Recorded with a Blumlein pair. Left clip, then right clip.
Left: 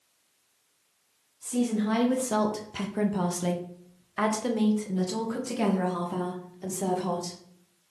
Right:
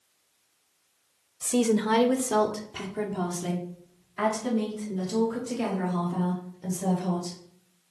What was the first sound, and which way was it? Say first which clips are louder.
A woman speaking: right 5 dB; 40° right.